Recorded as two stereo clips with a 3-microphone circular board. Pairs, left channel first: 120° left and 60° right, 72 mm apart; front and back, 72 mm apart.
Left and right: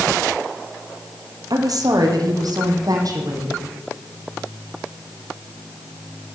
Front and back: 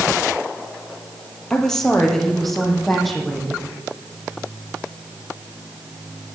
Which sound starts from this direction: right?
A woman speaking, at 1.5 s.